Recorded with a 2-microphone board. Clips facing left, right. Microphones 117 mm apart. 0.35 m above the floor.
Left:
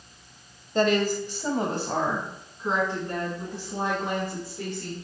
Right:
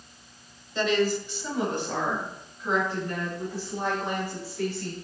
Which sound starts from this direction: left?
A woman speaking, at 0.8 s.